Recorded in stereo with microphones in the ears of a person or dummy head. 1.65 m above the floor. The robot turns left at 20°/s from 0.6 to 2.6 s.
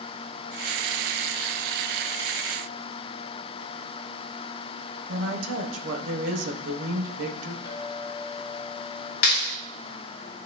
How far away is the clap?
About 1.9 m.